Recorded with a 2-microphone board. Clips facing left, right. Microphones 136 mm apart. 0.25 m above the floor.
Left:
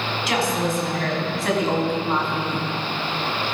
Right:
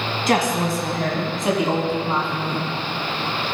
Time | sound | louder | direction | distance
0.3 | a woman speaking | right 3 dB | 50° right (ahead or behind) | 2 m